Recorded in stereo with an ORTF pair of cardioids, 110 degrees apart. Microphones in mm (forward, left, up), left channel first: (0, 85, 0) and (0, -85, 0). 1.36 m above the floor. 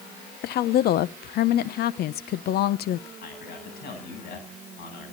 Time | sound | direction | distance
0.4 | a woman speaking | 65° left | 1.0 m
3.2 | a man speaking | 60° left | 9 m